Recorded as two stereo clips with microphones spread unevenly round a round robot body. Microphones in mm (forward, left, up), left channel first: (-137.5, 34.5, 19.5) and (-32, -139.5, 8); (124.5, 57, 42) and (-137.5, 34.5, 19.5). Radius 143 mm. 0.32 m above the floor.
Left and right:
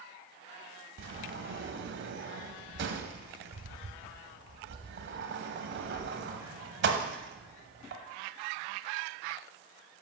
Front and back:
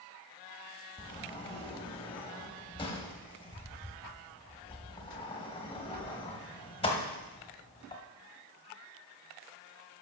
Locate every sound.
1.0 s a sliding door: 70° right, 1.1 m